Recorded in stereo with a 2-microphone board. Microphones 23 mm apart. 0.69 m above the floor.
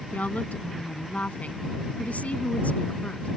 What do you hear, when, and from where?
0.1 s a woman speaking: 80° left